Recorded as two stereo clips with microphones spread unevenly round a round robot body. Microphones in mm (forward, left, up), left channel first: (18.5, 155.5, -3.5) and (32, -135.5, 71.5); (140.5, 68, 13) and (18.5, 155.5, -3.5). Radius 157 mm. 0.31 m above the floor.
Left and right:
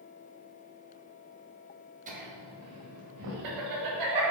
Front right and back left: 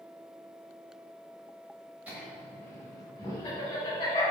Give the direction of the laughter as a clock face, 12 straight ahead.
5 o'clock.